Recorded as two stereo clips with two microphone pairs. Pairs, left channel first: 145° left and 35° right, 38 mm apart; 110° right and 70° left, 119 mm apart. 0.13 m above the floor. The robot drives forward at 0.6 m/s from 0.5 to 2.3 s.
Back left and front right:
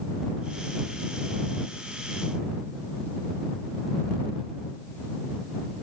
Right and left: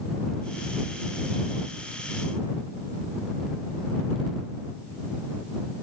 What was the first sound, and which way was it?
Only background noise.